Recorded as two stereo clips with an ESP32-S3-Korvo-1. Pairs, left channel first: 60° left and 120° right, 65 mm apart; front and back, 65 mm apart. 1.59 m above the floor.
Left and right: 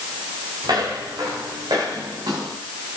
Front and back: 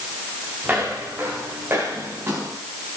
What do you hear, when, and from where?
0.6 s footsteps: 115° right, 8.5 m; by 2.6 s 125° right, 8.5 m